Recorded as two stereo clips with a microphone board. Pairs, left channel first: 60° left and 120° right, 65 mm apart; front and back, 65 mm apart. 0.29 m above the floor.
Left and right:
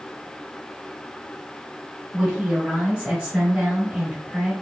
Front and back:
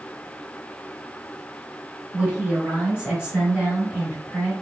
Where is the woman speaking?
140° right, 1.4 m.